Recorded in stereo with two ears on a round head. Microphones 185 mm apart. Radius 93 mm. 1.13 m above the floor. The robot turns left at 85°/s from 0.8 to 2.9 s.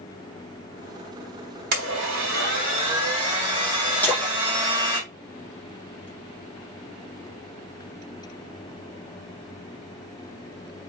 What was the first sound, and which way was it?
A blender, 55° right.